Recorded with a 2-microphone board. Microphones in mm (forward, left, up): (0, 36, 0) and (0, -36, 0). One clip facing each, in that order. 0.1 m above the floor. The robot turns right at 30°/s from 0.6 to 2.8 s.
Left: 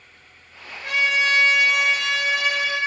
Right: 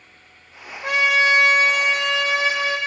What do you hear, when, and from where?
0.8 s a trumpet: 80° right, 3 m; by 2.8 s 20° right, 3 m